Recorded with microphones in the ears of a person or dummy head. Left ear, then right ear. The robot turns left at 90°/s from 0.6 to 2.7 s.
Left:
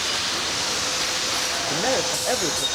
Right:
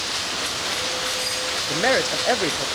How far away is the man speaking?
About 0.8 m.